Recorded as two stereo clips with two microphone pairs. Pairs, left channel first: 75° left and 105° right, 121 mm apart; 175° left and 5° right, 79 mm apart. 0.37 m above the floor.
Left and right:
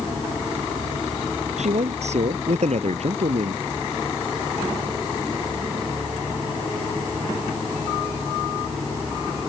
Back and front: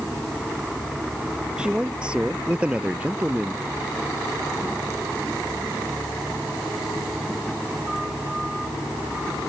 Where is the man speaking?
85° right; by 3.6 s 80° right.